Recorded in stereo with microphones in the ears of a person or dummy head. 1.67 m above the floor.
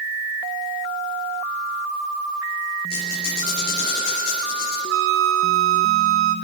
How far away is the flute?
About 1.0 m.